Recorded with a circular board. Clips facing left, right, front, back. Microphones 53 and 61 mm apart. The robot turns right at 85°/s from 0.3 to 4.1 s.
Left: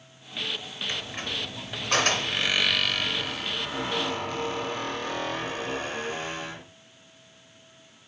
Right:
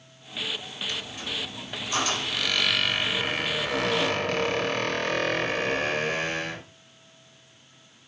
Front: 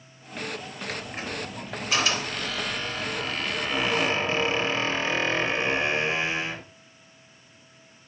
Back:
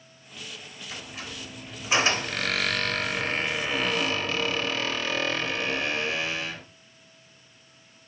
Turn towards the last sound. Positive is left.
turn(degrees=-60)